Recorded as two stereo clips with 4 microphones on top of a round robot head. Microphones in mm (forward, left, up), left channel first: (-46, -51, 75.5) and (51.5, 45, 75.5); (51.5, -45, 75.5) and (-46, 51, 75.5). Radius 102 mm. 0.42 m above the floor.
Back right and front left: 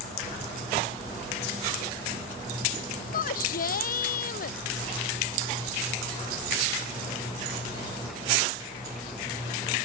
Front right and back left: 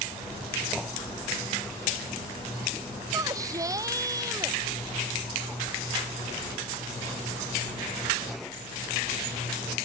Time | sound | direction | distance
3.1 | a shout | 155° right | ?